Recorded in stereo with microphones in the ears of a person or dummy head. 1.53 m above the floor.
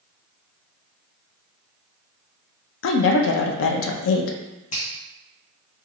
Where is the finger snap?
35° left (ahead or behind), 0.7 m.